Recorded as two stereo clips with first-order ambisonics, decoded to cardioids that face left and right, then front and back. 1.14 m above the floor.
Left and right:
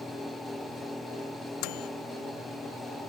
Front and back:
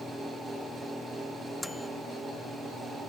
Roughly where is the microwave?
Left.